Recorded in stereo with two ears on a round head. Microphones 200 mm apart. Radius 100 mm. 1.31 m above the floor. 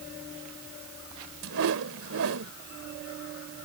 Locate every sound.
1.4 s a whoosh: 65° right (ahead or behind)